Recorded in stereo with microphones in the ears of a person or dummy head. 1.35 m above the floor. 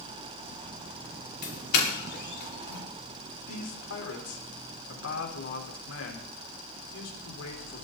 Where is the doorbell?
60° left (ahead or behind), 5 m.